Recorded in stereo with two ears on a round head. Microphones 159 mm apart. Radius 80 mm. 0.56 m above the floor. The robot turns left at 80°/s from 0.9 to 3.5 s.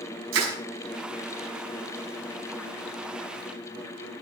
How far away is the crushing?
About 6 m.